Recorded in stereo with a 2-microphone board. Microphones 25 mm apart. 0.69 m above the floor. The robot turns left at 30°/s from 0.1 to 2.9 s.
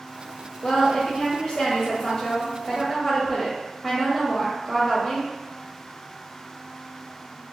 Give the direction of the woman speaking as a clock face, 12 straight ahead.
10 o'clock.